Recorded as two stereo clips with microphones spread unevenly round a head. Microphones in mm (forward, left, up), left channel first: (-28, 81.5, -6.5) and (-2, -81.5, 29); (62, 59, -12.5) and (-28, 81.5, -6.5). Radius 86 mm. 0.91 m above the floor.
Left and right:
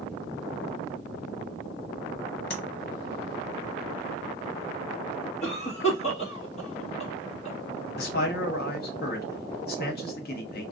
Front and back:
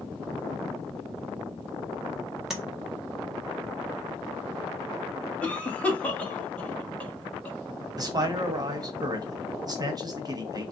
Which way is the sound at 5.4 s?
60° left.